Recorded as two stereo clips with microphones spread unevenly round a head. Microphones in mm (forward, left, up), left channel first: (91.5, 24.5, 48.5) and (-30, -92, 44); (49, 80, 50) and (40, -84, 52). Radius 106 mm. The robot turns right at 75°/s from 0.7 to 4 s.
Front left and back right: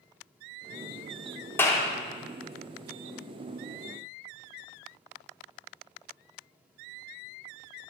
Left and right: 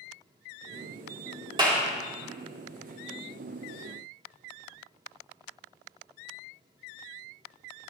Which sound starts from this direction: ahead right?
A clap, at 1.6 s.